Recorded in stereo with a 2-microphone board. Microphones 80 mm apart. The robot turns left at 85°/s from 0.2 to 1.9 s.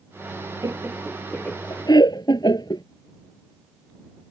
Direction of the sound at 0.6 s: 45° right (ahead or behind).